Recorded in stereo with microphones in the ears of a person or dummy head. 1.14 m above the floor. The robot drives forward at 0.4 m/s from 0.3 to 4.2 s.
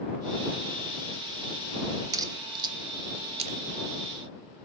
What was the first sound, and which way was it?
A crack, 20° right (ahead or behind).